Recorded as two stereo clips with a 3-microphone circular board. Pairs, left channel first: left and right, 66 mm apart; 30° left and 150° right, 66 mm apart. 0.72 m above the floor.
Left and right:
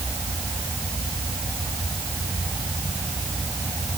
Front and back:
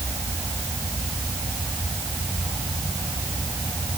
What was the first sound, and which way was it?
Only background noise.